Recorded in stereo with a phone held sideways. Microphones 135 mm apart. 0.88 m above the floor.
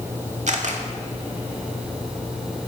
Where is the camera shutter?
65° right (ahead or behind), 1.9 m.